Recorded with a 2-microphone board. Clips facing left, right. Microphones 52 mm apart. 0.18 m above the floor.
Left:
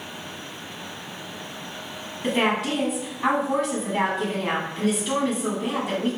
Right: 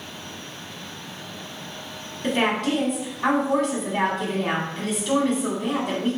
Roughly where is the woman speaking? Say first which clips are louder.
Even; centre.